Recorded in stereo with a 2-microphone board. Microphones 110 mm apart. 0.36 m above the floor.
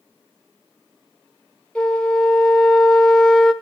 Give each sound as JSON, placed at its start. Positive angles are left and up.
{"t": 1.8, "sound": "a flute", "side_deg": 10, "distance_m": 1.0}